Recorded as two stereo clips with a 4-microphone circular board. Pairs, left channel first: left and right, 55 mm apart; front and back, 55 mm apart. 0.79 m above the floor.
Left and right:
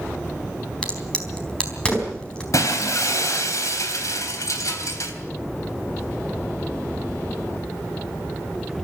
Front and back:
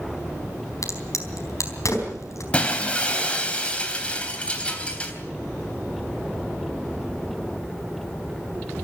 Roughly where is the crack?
Ahead.